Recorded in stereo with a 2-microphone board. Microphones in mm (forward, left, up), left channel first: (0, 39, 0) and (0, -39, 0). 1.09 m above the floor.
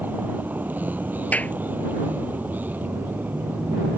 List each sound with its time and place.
0.0 s a vehicle: 20° right (ahead or behind)
1.3 s a clap: 20° left (ahead or behind)